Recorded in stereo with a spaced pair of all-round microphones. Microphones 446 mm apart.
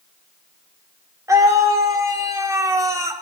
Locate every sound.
1.3 s a scream: 5° right (ahead or behind), 3 m